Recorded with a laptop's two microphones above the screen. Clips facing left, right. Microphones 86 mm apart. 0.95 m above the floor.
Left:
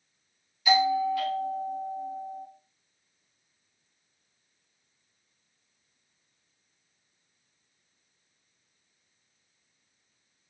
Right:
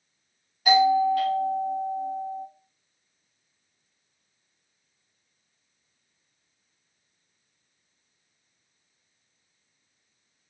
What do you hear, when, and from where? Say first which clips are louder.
0.7 s a doorbell: right 5 dB; 50° right (ahead or behind), 2 m